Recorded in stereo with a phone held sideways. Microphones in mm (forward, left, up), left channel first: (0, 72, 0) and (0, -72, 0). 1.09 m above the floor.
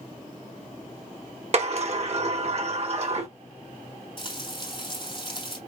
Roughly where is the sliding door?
Right.